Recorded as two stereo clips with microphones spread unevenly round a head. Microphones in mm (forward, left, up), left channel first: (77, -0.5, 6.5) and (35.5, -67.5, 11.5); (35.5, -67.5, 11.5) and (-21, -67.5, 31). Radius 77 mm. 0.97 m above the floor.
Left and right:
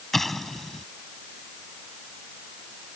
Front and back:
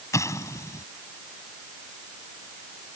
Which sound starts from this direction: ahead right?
An explosion, at 0.1 s.